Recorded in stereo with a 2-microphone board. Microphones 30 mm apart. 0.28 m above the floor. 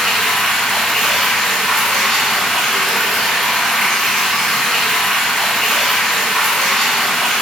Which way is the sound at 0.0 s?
20° left (ahead or behind).